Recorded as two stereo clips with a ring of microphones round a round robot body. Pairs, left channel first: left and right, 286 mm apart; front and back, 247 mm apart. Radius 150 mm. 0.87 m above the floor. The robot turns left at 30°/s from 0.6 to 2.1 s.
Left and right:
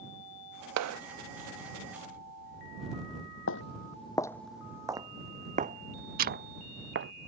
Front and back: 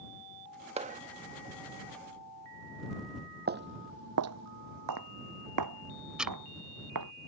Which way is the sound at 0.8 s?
115° right.